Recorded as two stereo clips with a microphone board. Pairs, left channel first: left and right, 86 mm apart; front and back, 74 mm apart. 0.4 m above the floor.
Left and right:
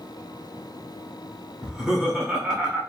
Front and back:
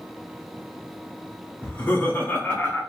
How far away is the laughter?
About 1.0 m.